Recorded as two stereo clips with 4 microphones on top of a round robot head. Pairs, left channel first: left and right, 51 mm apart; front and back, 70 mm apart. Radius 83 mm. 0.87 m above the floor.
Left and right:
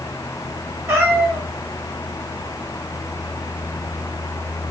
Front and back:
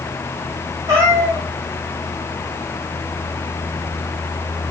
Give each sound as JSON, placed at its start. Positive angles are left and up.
{"t": 0.9, "sound": "a cat meowing", "azimuth_deg": -125, "distance_m": 1.1}